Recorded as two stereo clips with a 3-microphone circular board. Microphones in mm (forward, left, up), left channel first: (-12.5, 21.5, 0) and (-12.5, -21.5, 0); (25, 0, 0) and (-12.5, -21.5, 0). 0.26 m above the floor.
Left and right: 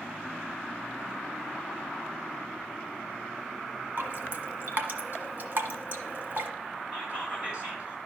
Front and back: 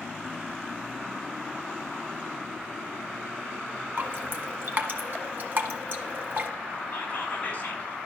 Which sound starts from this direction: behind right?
Dripping, at 4.0 s.